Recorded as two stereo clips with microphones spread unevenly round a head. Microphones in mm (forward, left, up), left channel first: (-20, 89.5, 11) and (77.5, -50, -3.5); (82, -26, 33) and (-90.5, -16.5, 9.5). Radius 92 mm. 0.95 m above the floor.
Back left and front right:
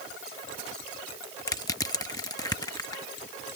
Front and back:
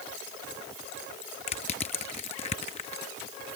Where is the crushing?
55° left.